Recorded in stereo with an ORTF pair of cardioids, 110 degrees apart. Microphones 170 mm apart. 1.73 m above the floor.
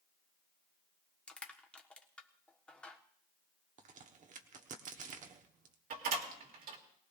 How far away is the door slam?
About 2.5 m.